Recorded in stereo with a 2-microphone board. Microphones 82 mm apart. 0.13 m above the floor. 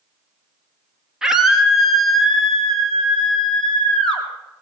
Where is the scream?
5° right (ahead or behind), 2.5 m; by 4.2 s 5° left (ahead or behind), 4 m.